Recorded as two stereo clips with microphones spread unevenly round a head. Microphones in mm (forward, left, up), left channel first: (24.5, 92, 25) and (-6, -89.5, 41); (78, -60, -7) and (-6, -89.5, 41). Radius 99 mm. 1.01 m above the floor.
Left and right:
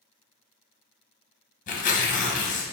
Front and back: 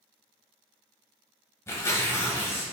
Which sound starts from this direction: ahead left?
Tearing paper, at 1.7 s.